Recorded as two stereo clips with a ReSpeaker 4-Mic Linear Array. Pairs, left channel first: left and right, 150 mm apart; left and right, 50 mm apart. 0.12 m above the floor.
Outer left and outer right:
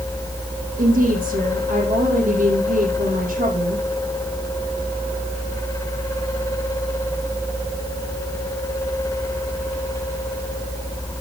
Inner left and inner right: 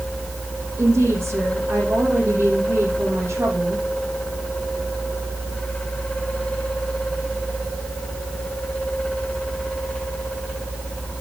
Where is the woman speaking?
65° right (ahead or behind), 5.5 m.